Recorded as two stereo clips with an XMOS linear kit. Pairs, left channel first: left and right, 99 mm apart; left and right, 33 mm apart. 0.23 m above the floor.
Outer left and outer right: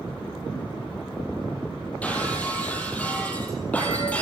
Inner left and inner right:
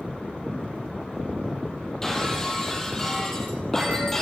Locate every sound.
2.0 s breaking glass: 15° left (ahead or behind), 4 m